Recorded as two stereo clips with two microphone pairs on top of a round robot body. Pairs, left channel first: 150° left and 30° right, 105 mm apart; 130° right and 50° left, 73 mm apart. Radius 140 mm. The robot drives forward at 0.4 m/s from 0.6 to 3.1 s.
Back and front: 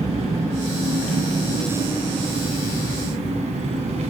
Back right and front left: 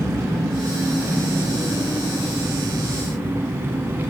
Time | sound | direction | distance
0.0 | an engine running | 5° right | 2.5 m